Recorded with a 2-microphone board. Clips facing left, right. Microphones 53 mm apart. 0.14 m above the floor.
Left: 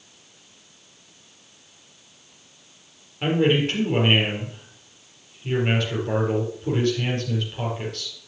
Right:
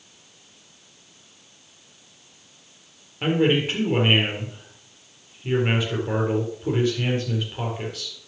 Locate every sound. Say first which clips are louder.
3.2 s a man speaking: even; 10° right (ahead or behind), 4 m